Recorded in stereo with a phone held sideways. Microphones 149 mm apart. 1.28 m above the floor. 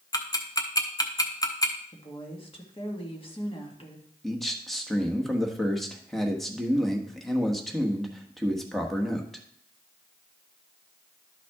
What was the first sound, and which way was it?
Ticking, 25° left (ahead or behind).